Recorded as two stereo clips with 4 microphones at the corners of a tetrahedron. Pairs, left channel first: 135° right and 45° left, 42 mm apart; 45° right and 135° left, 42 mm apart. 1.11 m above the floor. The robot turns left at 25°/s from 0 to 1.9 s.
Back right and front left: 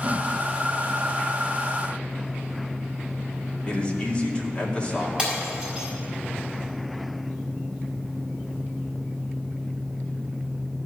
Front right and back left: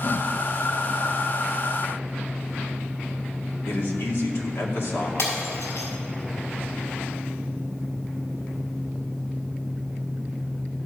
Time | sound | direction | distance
3.7 | a man speaking | 70° right | 2 m
5.2 | breaking glass | 25° right | 5 m